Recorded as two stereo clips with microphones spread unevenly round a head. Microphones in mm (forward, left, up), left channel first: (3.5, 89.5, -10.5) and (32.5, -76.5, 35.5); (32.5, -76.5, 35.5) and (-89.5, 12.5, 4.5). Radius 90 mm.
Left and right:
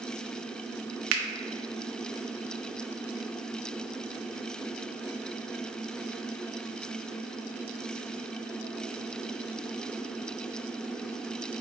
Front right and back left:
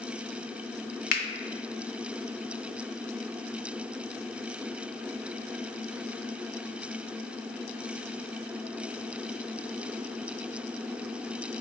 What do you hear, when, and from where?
1.1 s a finger snap: 70° right, 0.6 m